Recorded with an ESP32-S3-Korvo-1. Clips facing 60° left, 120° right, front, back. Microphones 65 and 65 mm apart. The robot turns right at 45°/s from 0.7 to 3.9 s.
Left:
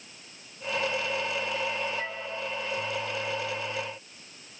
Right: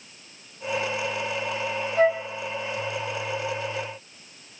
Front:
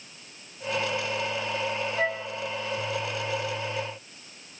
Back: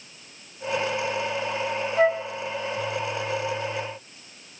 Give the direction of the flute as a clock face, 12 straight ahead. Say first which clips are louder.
Right 14 dB, back 10 dB; 4 o'clock.